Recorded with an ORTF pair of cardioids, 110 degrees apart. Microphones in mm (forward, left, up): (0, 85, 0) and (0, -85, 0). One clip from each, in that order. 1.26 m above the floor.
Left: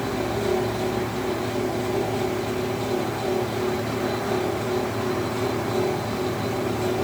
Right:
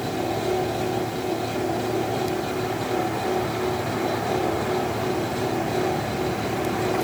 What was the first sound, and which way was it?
A fan, straight ahead.